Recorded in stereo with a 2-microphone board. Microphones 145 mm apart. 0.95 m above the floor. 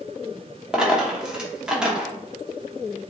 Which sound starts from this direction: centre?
A dropped coin, at 0.7 s.